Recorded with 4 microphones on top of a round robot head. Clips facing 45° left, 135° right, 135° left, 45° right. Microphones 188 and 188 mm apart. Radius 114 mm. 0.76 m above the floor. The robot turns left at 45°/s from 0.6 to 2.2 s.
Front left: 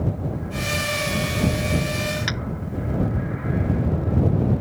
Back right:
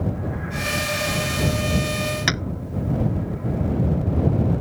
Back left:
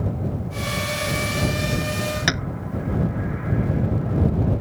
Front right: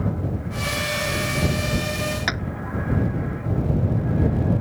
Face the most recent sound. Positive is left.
turn(degrees=-165)